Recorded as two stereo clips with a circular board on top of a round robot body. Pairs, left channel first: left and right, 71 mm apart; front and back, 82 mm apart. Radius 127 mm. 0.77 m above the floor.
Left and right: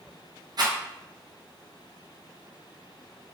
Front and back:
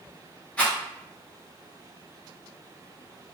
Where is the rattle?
75° right, 1.0 m.